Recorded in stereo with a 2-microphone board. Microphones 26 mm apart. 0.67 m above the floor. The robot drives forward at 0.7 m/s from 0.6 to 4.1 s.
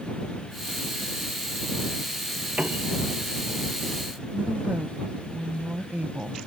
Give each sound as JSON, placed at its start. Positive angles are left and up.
{"t": 2.6, "sound": "a piano", "side_deg": -60}
{"t": 4.3, "sound": "a woman speaking", "side_deg": -65}